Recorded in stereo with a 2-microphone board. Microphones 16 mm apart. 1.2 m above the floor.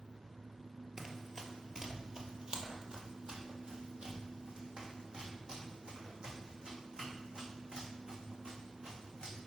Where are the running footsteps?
20° right (ahead or behind), 1.2 m; by 9.4 s 55° right (ahead or behind), 4.5 m.